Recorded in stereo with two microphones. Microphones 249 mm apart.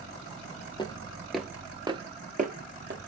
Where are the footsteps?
20° left (ahead or behind), 0.9 m; by 3.1 s 45° right (ahead or behind), 1.2 m.